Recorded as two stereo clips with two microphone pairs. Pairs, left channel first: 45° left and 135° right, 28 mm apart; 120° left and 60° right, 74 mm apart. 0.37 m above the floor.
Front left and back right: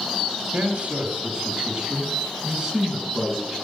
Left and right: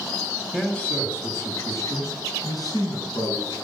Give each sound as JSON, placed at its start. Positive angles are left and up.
{"t": 0.5, "sound": "a man speaking", "azimuth_deg": -160, "distance_m": 3.0}